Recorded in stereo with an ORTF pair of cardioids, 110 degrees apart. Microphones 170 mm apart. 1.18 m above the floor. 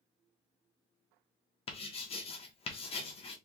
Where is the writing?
35° left, 1.1 m.